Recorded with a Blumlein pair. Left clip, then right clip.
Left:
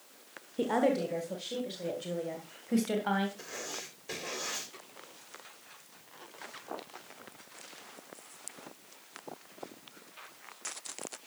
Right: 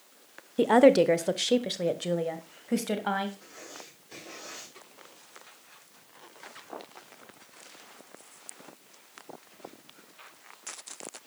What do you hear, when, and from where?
0.6 s a woman speaking: 20° right, 1.1 m; by 3.3 s 80° right, 2.5 m
3.4 s writing: 50° left, 3.5 m